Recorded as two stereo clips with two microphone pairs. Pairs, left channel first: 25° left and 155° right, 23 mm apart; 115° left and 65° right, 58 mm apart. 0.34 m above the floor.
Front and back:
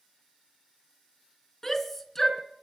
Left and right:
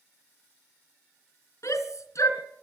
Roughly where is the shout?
Left.